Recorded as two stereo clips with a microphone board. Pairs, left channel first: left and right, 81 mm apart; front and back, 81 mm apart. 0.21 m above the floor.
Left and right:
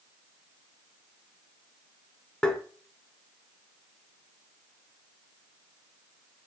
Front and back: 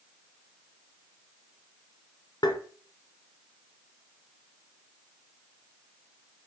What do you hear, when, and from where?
2.4 s tapping: 10° left, 0.6 m